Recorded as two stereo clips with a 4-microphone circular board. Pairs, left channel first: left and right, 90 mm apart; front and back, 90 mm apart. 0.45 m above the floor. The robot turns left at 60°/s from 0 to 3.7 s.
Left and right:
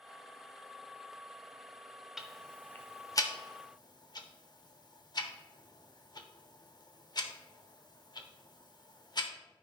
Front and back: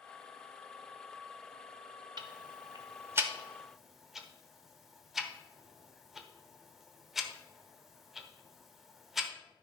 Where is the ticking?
175° right, 0.9 m; by 9.3 s 95° left, 0.9 m.